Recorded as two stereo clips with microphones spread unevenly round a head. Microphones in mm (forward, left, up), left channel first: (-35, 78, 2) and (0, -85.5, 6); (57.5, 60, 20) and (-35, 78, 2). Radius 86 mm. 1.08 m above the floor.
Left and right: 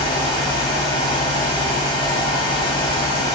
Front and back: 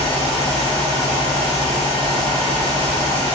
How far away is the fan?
About 1.6 m.